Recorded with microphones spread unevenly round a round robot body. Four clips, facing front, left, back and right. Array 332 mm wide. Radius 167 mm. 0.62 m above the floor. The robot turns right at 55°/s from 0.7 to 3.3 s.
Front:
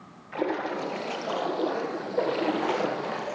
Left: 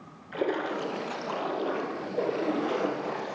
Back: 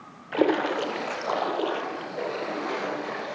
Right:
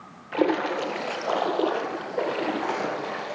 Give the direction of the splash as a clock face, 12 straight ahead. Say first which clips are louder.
Right 6 dB, back 6 dB; 5 o'clock.